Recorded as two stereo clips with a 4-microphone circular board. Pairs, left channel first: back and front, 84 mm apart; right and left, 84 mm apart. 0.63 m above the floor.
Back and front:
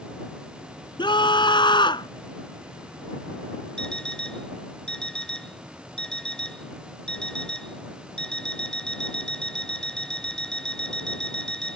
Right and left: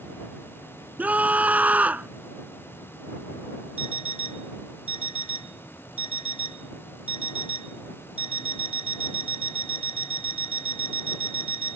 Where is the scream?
160° left.